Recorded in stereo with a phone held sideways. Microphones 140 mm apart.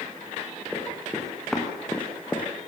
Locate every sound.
0.7 s running footsteps: centre (ahead or behind), 6 m; by 2.5 s 10° left (ahead or behind), 3.5 m